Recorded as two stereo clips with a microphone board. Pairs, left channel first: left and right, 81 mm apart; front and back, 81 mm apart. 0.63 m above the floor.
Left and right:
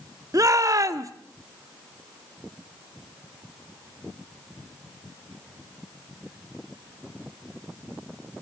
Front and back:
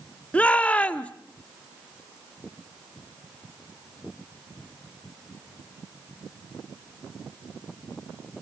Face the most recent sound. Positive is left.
turn(degrees=-65)